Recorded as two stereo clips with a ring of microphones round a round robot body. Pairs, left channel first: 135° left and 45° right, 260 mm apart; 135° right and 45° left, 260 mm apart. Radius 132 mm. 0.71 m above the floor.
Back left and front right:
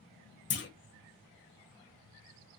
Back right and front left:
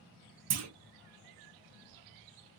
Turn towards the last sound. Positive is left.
turn(degrees=80)